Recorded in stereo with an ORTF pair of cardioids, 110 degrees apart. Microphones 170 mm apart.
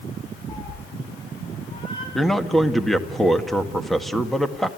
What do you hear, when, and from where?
0.5 s a cat meowing: 15° left, 5.5 m; by 2.0 s 35° left, 6 m
2.1 s a man speaking: straight ahead, 1.8 m